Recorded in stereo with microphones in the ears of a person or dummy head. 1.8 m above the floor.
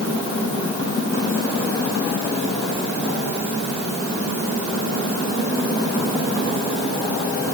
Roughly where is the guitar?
I don't hear a guitar.